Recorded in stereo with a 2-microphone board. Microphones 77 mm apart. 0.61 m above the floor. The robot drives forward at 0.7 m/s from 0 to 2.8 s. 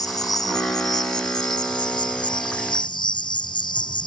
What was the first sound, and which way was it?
An insect, 55° left (ahead or behind).